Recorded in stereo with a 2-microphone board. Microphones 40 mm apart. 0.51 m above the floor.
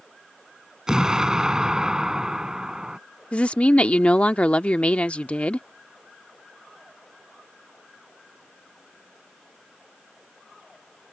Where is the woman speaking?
30° left (ahead or behind).